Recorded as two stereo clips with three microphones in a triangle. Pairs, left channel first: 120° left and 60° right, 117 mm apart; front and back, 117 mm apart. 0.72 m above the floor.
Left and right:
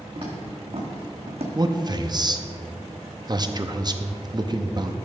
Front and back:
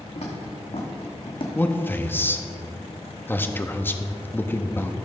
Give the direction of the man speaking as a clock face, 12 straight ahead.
2 o'clock.